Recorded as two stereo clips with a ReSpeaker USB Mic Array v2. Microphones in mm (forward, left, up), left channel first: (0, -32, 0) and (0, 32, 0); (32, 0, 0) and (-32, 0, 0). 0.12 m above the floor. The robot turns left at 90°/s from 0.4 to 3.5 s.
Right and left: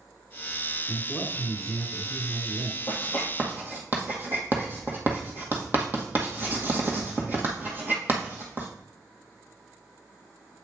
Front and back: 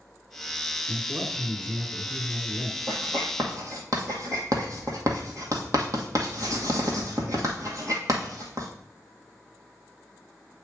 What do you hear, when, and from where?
0.9 s a man speaking: 85° right, 1.7 m; by 2.8 s 105° left, 1.7 m
2.9 s writing: 155° right, 1.6 m; by 8.7 s 150° left, 1.6 m